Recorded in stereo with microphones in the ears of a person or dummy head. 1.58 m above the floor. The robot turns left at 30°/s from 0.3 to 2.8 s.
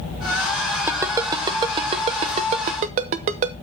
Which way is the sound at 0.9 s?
15° right (ahead or behind).